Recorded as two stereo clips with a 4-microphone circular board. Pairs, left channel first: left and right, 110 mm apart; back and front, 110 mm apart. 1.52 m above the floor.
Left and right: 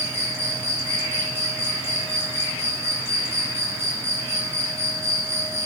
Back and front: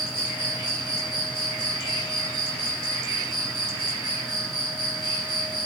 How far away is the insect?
About 1.7 m.